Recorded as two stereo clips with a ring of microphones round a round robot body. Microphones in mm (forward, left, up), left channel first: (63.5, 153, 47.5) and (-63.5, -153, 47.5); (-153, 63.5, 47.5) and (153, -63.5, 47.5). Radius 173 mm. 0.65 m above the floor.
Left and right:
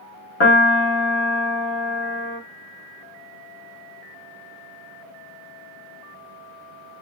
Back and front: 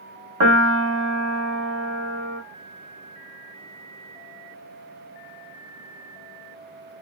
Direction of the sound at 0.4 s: 15° left.